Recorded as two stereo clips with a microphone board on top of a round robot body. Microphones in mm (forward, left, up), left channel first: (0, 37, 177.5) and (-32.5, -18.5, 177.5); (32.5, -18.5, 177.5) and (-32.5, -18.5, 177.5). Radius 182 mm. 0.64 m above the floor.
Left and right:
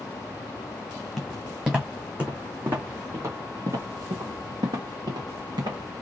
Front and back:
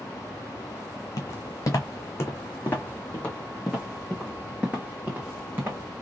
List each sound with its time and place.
1.2 s footsteps: 35° right, 2 m; by 5.8 s 120° right, 2 m